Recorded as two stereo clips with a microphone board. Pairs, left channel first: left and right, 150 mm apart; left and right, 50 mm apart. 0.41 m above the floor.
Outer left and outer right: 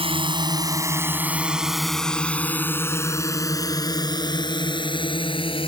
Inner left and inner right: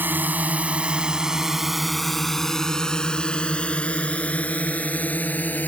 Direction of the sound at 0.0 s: 40° right (ahead or behind).